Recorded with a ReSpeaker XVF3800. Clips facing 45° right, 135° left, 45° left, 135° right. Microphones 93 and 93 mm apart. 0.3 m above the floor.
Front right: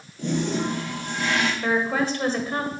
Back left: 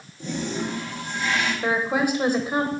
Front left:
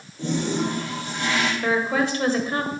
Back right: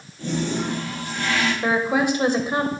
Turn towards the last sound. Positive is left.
turn(degrees=-175)